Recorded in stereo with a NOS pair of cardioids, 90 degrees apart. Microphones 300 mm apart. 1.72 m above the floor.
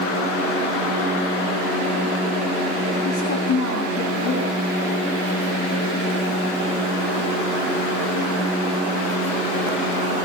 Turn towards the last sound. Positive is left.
turn(degrees=70)